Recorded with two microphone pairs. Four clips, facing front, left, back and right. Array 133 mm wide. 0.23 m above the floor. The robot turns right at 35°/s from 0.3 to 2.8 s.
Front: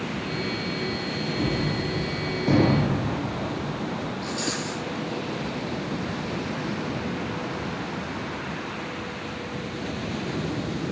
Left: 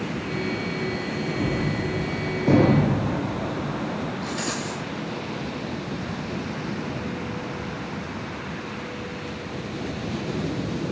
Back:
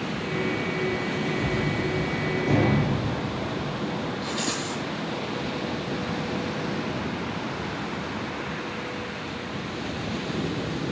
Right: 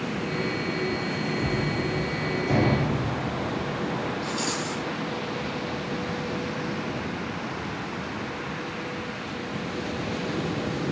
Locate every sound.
1.4 s a gunshot: 25° left, 7 m; by 4.1 s 80° left, 7 m
4.2 s a rattle: 120° left, 10 m